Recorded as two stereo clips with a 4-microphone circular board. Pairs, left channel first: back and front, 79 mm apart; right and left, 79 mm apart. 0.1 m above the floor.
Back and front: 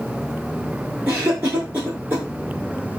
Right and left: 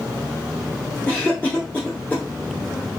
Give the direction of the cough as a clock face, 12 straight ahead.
1 o'clock.